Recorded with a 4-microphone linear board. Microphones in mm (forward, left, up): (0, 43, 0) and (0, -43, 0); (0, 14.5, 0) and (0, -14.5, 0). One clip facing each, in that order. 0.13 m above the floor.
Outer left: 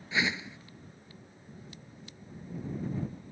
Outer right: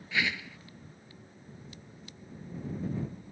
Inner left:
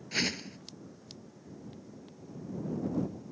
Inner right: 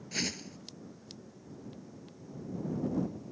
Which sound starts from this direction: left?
A whoosh, at 0.1 s.